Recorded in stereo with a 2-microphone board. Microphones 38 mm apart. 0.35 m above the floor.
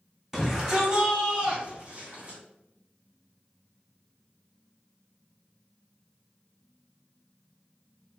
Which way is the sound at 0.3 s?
10° right (ahead or behind).